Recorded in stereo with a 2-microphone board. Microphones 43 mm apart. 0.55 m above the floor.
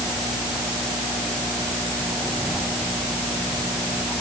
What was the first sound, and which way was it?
Only background noise.